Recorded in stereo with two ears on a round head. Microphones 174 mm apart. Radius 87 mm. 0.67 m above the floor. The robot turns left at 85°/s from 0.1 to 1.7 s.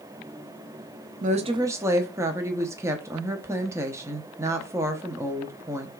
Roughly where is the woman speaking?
Behind right.